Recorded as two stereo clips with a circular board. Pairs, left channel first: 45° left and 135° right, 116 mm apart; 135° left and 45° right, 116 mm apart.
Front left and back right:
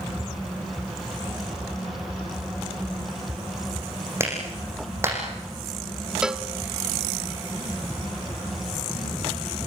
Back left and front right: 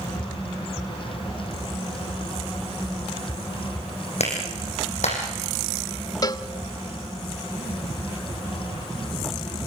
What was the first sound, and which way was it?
A clap, 155° left.